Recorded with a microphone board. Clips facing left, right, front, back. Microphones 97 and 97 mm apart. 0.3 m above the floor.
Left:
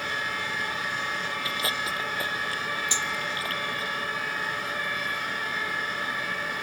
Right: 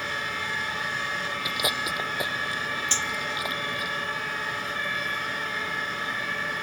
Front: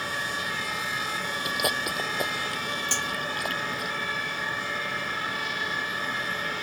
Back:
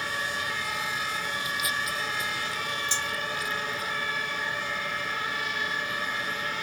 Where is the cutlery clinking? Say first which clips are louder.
Even, front 1 dB; 15° left.